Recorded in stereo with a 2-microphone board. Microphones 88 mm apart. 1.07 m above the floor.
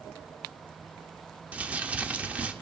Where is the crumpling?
15° right (ahead or behind), 0.7 m.